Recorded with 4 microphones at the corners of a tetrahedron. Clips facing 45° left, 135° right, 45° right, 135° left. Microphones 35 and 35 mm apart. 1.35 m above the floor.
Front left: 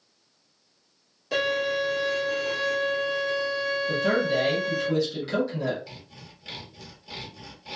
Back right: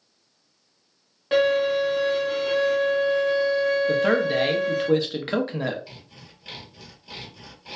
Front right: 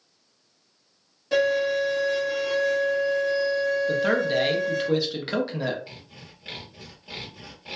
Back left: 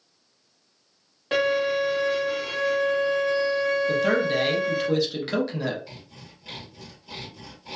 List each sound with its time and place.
1.3 s a violin: 175° left, 1.2 m
3.9 s a man speaking: 125° right, 0.7 m
5.9 s sawing: 55° right, 1.1 m